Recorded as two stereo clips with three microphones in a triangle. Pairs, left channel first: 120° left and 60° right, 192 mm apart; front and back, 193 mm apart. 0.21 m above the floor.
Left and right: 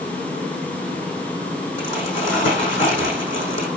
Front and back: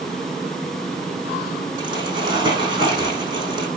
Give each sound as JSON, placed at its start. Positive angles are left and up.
{"t": 1.8, "sound": "crumpling", "azimuth_deg": 115, "distance_m": 8.0}